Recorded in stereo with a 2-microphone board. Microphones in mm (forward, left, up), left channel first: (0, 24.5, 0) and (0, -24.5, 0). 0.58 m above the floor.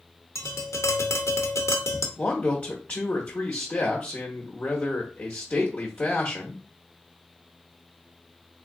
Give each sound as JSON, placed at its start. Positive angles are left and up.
{"t": 0.3, "sound": "tapping", "side_deg": 80, "distance_m": 0.6}
{"t": 2.2, "sound": "a man speaking", "side_deg": 25, "distance_m": 1.0}